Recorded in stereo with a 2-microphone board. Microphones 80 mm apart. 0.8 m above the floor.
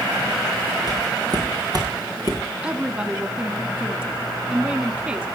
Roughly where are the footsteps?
Right.